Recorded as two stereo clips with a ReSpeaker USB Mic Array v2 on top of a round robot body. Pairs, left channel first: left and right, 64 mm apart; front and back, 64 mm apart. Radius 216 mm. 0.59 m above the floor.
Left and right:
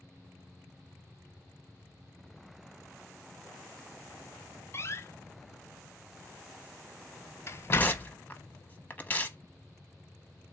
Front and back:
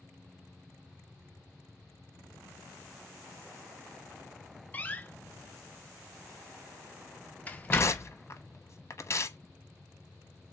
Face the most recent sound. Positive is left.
turn(degrees=30)